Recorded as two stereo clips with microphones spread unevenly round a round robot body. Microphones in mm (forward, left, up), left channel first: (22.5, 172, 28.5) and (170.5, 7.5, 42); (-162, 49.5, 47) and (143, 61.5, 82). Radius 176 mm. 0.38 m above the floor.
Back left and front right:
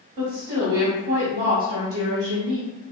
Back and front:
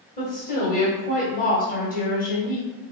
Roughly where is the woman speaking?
Behind right.